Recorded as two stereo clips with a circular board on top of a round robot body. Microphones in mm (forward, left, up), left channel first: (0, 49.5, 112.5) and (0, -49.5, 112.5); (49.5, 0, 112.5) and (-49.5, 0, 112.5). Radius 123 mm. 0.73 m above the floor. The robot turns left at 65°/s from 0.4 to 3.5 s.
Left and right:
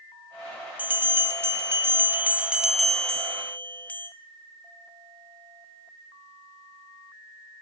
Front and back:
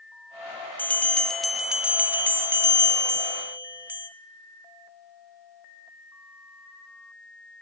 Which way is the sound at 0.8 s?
45° right.